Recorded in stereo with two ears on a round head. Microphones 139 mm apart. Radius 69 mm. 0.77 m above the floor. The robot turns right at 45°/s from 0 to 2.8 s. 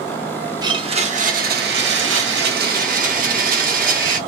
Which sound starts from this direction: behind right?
A blender, at 0.6 s.